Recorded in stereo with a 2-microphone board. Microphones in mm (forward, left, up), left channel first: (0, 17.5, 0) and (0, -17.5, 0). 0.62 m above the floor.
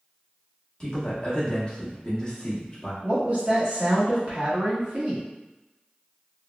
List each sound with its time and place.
0.8 s a man speaking: 25° left (ahead or behind), 0.9 m
3.0 s a woman speaking: 40° right (ahead or behind), 1.3 m